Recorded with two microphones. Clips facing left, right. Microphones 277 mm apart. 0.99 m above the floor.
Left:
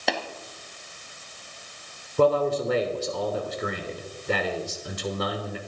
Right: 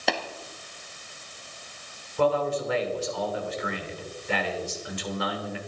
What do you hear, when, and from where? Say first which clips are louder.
0.1 s tapping: even; centre (ahead or behind), 1.9 m
2.2 s a man speaking: left 3 dB; 45° left (ahead or behind), 3 m